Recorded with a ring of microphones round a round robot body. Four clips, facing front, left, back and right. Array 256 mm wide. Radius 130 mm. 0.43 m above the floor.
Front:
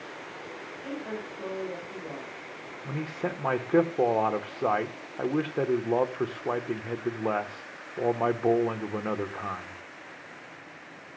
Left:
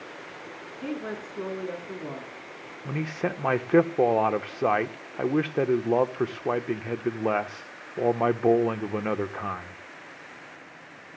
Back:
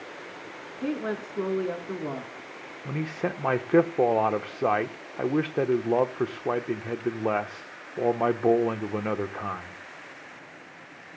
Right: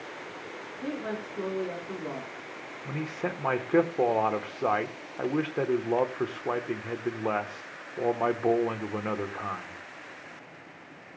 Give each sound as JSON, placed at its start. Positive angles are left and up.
{"t": 0.8, "sound": "a woman speaking", "azimuth_deg": 175, "distance_m": 4.0}
{"t": 2.9, "sound": "a man speaking", "azimuth_deg": 120, "distance_m": 1.0}